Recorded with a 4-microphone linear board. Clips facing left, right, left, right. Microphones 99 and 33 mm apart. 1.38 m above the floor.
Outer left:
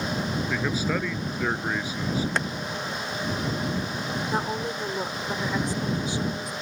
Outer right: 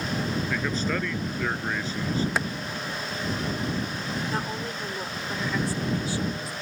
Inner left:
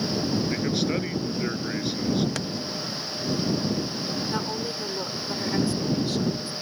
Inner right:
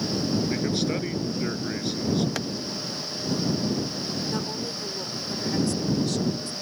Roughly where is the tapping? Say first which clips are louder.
Even, inner right 1 dB; centre.